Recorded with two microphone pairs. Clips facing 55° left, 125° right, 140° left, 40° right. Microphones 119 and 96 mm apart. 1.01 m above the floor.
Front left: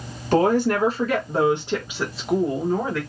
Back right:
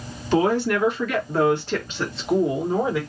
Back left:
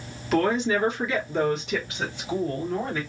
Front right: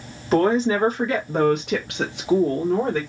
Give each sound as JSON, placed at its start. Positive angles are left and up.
{"t": 0.3, "sound": "a woman speaking", "azimuth_deg": 15, "distance_m": 1.3}